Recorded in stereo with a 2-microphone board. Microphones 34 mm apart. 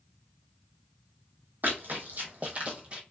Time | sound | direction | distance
1.6 | running footsteps | 55° right (ahead or behind) | 1.1 m